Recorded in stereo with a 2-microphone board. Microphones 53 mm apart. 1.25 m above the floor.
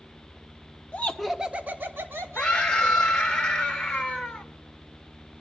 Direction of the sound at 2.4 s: 15° left (ahead or behind).